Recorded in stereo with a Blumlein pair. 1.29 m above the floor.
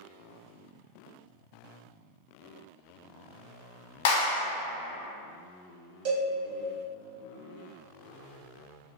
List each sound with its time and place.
4.0 s a clap: 50° left, 0.8 m
6.0 s a cowbell: 45° right, 0.9 m